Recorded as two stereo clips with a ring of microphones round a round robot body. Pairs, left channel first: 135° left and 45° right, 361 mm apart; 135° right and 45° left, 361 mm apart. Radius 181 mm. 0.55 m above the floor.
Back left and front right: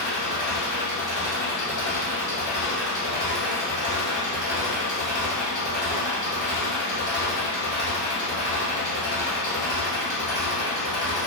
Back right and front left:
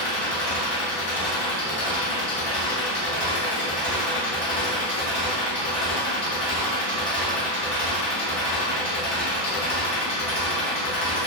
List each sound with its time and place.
0.0 s an engine running: 135° right, 1.3 m